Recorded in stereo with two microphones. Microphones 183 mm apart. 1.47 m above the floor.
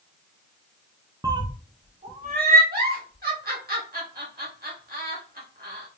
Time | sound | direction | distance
1.2 | a cat meowing | 20° right (ahead or behind) | 0.7 m
2.7 | a giggle | 55° right (ahead or behind) | 1.6 m